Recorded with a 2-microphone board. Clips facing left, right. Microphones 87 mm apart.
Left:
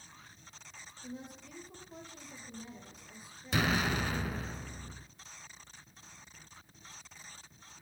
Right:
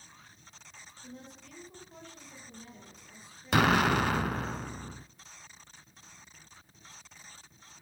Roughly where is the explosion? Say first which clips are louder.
Right 7 dB; right.